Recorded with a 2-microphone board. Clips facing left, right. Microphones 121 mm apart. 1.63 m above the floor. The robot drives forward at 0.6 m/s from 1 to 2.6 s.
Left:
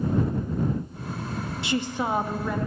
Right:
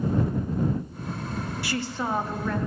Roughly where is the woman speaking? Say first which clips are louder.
Left 4 dB; left.